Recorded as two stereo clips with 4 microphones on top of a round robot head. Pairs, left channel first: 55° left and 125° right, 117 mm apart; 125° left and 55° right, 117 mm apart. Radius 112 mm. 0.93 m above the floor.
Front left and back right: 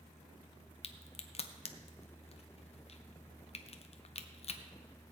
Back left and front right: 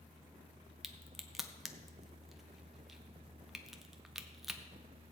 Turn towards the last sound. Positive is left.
turn(degrees=35)